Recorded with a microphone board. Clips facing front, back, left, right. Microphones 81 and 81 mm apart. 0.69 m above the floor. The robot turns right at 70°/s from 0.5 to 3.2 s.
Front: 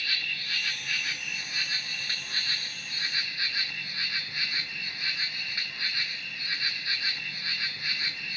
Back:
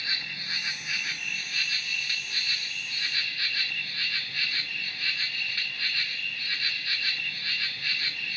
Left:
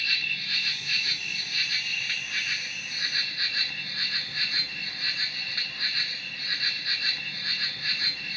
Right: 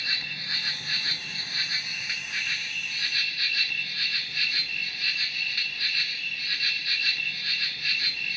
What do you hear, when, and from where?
0.0 s an insect: 130° right, 0.8 m; by 8.4 s 55° left, 0.8 m